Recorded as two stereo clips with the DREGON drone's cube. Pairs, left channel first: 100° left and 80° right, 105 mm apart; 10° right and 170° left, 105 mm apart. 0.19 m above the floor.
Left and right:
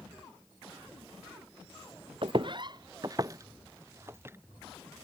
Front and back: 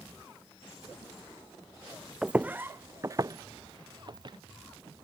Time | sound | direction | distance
2.2 | footsteps | 110° right | ?